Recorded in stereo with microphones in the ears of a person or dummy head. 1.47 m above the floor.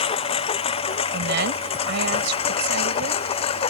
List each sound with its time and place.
0.0 s a lawn mower: 25° left (ahead or behind)
1.1 s a woman speaking: 70° right (ahead or behind)